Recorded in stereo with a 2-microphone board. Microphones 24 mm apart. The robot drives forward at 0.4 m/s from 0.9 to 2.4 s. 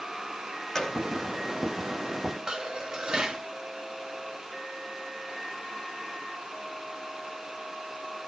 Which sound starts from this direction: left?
A gunshot, at 0.8 s.